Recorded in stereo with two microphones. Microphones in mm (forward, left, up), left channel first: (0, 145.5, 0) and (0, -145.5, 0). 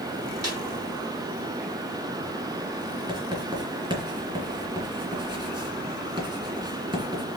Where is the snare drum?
60° right (ahead or behind), 4 m.